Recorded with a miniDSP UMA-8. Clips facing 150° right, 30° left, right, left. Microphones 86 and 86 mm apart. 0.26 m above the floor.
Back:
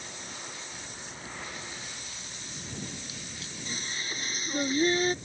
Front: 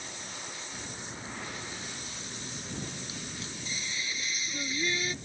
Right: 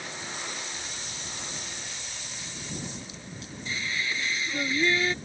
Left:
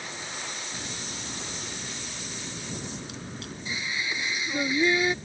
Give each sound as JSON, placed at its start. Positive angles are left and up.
{"t": 0.7, "sound": "a crack", "azimuth_deg": 85}
{"t": 3.6, "sound": "singing", "azimuth_deg": 165}